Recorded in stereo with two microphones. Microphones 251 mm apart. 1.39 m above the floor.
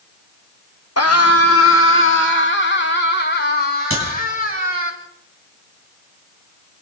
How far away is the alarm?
No alarm in this recording.